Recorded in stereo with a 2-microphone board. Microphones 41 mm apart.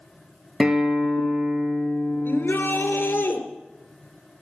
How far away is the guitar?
About 1.9 m.